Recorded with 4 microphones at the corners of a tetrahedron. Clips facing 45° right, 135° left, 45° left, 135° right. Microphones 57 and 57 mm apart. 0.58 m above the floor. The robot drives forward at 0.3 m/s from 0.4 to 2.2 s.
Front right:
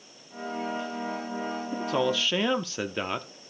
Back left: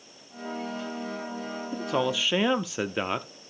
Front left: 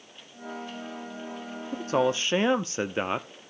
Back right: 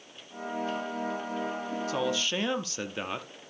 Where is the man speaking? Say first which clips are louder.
Even, front left 7 dB; 45° left, 0.7 m; by 3.3 s 65° left, 0.6 m.